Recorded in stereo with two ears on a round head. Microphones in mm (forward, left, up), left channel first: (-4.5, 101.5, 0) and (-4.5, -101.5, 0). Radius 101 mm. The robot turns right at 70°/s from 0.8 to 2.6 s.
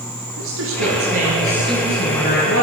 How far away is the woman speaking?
About 7.5 m.